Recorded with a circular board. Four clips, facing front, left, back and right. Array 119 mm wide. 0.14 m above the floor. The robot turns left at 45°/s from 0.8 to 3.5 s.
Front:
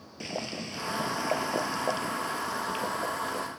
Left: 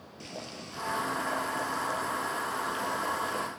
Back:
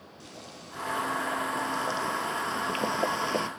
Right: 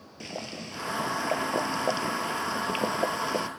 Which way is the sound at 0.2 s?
25° right.